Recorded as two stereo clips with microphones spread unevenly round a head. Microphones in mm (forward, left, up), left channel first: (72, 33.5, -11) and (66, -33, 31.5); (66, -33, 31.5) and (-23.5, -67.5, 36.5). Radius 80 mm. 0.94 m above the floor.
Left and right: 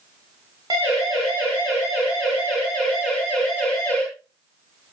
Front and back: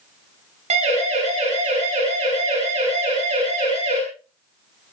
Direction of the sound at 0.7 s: 165° right.